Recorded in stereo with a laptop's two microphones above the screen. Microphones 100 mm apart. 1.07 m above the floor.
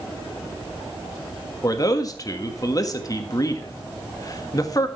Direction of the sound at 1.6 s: 35° left (ahead or behind).